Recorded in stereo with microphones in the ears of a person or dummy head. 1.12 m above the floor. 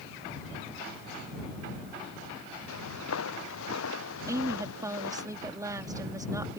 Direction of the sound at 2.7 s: 80° left.